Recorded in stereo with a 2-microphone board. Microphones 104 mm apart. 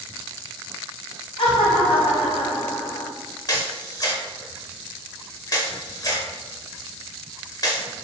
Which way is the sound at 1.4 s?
65° left (ahead or behind).